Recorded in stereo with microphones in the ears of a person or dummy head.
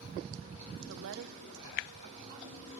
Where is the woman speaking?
75° right (ahead or behind), 0.7 m; by 2.7 s 35° right (ahead or behind), 1.4 m.